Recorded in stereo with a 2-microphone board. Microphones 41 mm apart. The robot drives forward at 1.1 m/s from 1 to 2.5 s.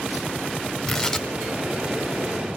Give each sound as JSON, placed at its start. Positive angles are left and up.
{"t": 0.9, "sound": "tearing paper", "side_deg": 10, "distance_m": 0.7}